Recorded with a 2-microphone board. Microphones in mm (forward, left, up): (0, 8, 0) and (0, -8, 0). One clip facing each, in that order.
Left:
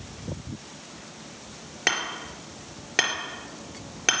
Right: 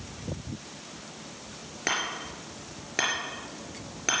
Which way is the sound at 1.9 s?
25° left (ahead or behind).